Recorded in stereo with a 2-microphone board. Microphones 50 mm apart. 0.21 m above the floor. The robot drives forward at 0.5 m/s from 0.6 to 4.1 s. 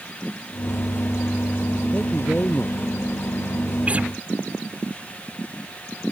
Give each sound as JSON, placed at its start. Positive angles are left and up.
{"t": 1.9, "sound": "a man speaking", "side_deg": 25}
{"t": 3.9, "sound": "a guitar", "side_deg": -25}